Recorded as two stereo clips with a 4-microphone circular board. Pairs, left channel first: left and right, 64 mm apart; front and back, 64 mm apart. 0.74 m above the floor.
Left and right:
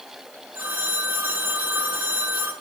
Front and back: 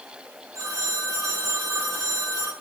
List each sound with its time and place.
0.6 s a phone ringing: 150° right, 6.5 m